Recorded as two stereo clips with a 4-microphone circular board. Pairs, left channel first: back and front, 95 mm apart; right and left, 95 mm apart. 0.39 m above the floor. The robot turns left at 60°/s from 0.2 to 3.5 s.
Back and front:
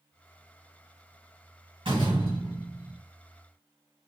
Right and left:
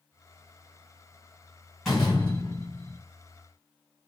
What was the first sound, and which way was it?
A door slam, straight ahead.